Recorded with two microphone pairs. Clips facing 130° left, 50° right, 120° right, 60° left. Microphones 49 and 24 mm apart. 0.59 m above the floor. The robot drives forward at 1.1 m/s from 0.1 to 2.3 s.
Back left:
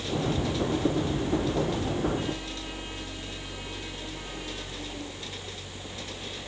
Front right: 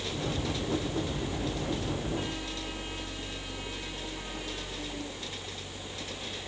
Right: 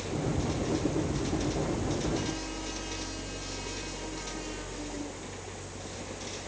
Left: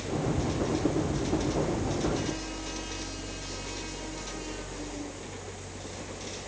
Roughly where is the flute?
I don't hear a flute.